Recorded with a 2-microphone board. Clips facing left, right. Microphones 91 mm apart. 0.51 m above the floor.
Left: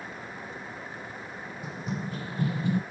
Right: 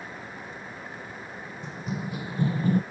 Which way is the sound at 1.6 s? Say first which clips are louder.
Right 1 dB; 5° left (ahead or behind).